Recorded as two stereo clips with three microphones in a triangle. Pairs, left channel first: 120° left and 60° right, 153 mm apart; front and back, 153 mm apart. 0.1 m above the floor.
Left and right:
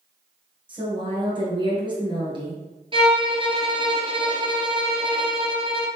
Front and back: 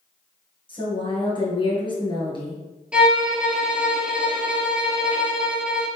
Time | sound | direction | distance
0.7 | a woman speaking | 30° right | 1.8 m
2.9 | a violin | 100° right | 0.7 m